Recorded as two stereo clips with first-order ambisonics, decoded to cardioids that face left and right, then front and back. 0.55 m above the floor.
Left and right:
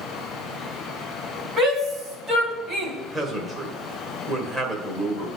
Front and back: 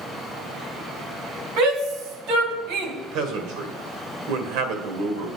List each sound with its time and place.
1.6 s a shout: 165° right, 4 m; by 2.9 s 150° right, 3 m
3.0 s a man speaking: 165° right, 1.9 m